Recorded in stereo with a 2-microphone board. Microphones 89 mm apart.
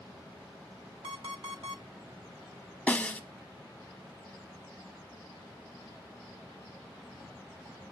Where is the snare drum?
15° left (ahead or behind), 1.1 m.